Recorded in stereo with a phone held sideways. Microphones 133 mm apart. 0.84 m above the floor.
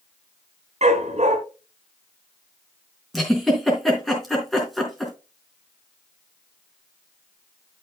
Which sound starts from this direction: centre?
A giggle, at 3.1 s.